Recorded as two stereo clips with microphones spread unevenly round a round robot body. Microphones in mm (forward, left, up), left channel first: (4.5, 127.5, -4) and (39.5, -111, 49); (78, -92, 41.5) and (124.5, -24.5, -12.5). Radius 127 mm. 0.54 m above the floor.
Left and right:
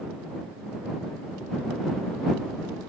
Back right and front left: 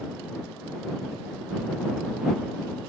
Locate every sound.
Only background noise.